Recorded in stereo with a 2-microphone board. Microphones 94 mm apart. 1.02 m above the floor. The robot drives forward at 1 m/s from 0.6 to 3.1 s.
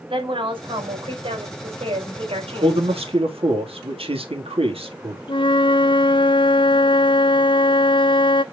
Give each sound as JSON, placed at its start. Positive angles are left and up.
{"t": 0.1, "sound": "a woman speaking", "side_deg": -60, "distance_m": 3.5}
{"t": 2.6, "sound": "a man speaking", "side_deg": -80, "distance_m": 1.9}
{"t": 5.3, "sound": "a flute", "side_deg": 55, "distance_m": 0.6}